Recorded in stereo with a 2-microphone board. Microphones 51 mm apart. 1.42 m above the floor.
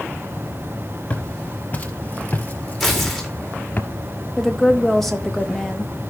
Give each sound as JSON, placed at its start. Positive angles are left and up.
{"t": 1.1, "sound": "footsteps", "side_deg": 30, "distance_m": 2.5}
{"t": 2.8, "sound": "tearing paper", "side_deg": 0, "distance_m": 4.0}
{"t": 4.4, "sound": "a woman speaking", "side_deg": 5, "distance_m": 1.7}